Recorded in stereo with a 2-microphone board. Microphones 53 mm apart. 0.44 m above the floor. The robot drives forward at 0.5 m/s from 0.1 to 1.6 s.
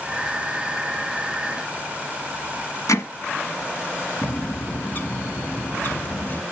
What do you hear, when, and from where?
2.9 s hammering: 90° left, 1.3 m
4.2 s a bird: 40° left (ahead or behind), 0.6 m